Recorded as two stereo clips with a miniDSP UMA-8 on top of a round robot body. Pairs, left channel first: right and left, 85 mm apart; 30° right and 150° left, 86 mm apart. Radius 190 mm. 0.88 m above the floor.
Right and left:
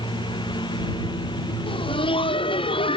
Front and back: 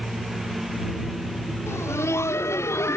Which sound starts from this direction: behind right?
A lawn mower, at 0.0 s.